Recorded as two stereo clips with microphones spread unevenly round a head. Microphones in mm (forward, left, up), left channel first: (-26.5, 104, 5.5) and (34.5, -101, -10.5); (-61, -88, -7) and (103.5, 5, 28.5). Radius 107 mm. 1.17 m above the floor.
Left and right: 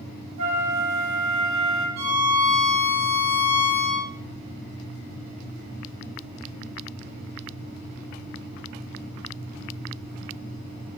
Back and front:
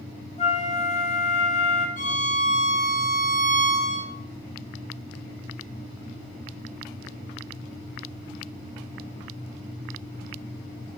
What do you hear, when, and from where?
0.4 s a flute: 100° right, 1.8 m
2.0 s a violin: 105° right, 2.5 m